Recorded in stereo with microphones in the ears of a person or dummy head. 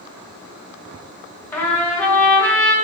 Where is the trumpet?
10° left (ahead or behind), 0.6 m.